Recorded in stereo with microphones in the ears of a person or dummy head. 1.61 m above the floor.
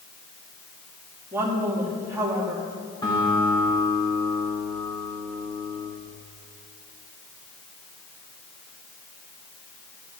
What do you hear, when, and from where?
1.3 s a woman speaking: 15° right (ahead or behind), 2.5 m
3.0 s a guitar: 25° left (ahead or behind), 3.5 m